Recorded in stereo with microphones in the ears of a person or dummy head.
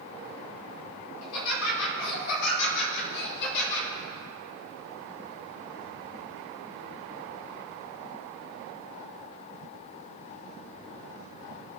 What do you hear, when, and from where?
1.2 s laughter: 85° left, 4 m; by 3.9 s 55° left (ahead or behind), 4.5 m